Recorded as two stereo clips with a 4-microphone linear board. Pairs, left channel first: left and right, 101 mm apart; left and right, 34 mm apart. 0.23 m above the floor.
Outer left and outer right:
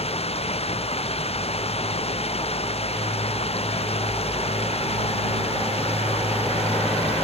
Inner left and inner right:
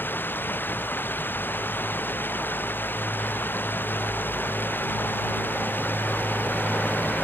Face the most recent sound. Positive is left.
turn(degrees=90)